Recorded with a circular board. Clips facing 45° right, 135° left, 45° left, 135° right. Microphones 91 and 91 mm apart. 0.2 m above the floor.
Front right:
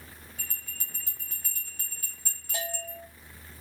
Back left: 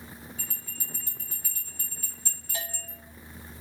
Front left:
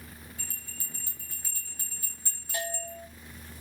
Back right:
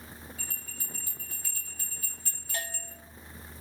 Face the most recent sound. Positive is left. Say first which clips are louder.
# front right 5 dB, front left 5 dB
turn(degrees=-30)